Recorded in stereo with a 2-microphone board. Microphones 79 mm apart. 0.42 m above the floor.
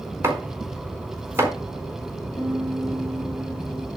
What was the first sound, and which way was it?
Chopping, 35° right (ahead or behind).